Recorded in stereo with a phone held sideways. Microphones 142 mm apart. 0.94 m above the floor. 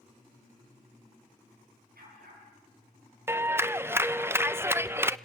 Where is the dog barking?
90° right, 9.5 m.